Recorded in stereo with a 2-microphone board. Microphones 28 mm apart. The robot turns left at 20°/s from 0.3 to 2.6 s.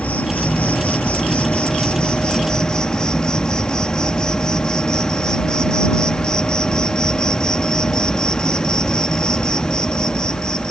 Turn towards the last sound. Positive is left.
turn(degrees=30)